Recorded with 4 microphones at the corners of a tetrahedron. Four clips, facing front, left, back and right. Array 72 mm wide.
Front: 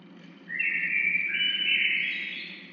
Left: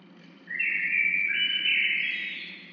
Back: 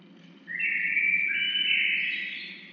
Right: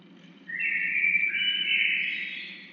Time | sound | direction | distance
0.5 | a bird | 25° left | 0.6 m